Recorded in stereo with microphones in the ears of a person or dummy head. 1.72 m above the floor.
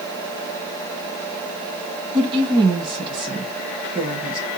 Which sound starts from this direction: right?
A woman speaking, at 2.1 s.